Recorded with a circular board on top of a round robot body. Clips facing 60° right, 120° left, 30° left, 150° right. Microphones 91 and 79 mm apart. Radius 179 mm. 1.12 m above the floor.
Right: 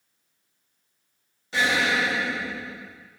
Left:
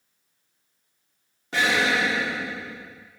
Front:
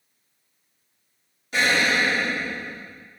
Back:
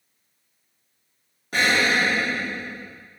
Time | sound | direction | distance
1.5 | an explosion | 165° left | 1.4 m